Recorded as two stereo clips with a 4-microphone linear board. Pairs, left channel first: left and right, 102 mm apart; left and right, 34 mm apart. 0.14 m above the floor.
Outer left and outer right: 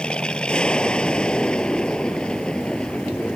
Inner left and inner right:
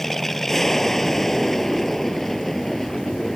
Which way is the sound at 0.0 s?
10° left (ahead or behind).